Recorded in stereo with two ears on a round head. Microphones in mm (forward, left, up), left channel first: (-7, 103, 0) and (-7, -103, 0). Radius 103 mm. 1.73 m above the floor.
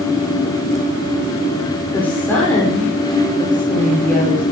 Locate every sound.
1.9 s a woman speaking: 10° left (ahead or behind), 5 m